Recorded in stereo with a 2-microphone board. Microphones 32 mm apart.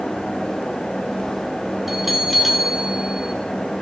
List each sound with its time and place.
1.9 s a bell: 5° right (ahead or behind), 2 m